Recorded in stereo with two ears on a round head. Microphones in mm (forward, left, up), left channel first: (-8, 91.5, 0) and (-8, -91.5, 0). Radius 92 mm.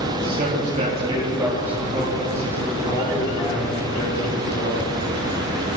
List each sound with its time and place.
0.2 s a man speaking: 50° right (ahead or behind), 3 m; by 5.8 s 40° left (ahead or behind), 7 m